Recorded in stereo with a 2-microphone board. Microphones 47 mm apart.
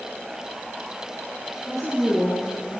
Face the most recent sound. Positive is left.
turn(degrees=-10)  # may be behind; listen again after turning